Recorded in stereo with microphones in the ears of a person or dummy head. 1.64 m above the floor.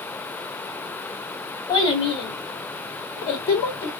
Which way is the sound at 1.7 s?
25° left (ahead or behind).